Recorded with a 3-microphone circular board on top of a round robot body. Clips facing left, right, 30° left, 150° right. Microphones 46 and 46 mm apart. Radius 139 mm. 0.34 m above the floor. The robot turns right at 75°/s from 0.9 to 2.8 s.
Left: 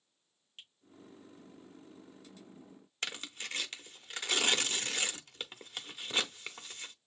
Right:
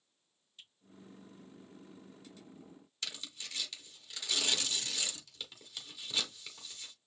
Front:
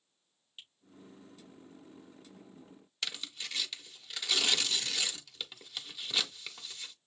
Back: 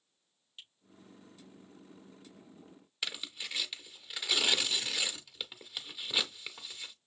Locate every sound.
0.6 s a finger snap: 110° left, 5 m
3.0 s tearing paper: 135° left, 0.9 m